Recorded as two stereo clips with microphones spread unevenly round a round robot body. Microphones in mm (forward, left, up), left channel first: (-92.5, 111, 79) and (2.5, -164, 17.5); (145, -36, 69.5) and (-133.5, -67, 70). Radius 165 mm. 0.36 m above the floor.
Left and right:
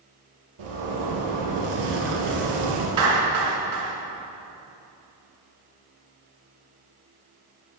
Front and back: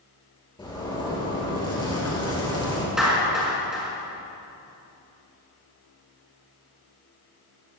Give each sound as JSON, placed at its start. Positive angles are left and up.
{"t": 0.6, "sound": "a zipper", "azimuth_deg": -70, "distance_m": 4.0}
{"t": 3.0, "sound": "a clap", "azimuth_deg": -85, "distance_m": 5.0}